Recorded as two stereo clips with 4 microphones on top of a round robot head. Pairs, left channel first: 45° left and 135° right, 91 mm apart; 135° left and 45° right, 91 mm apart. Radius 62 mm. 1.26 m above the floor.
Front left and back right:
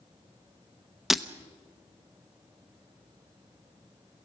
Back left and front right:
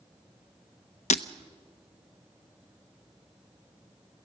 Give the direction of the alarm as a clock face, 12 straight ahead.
No alarm in this recording.